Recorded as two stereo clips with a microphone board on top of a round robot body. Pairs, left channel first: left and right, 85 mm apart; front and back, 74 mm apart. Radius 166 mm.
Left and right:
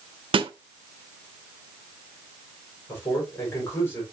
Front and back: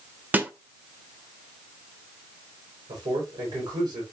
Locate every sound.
0.3 s a snare drum: 110° right, 1.0 m
2.9 s a man speaking: 150° left, 5 m